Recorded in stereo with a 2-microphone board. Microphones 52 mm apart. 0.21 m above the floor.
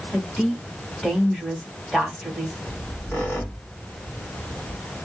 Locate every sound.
0.1 s a woman speaking: 10° left (ahead or behind), 1.6 m
2.7 s a squeak: 45° left (ahead or behind), 1.4 m